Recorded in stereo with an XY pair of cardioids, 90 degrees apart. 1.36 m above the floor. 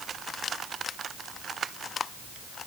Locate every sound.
Only background noise.